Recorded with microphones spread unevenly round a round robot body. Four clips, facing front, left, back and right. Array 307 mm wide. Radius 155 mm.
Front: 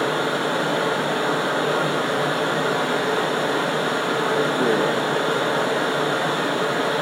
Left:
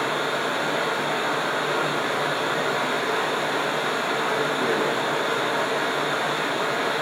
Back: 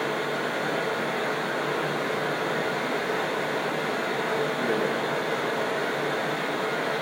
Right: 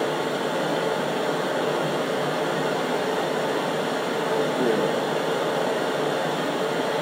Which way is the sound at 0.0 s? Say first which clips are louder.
Even, front 6 dB; 30° right.